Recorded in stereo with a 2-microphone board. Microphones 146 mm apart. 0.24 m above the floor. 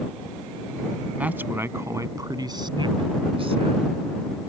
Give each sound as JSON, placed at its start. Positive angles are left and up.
{"t": 1.2, "sound": "a man speaking", "side_deg": -10}